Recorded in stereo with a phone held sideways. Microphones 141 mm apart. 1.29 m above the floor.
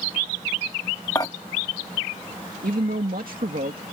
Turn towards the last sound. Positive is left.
turn(degrees=-85)